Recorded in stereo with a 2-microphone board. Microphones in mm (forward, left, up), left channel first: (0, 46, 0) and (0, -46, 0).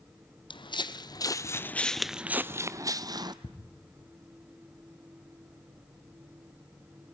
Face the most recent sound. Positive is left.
turn(degrees=85)